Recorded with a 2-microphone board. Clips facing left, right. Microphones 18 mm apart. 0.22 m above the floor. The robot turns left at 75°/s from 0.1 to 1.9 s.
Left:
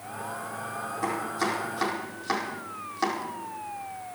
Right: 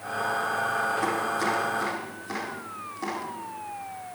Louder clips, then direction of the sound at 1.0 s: Right 3 dB; 20° right (ahead or behind).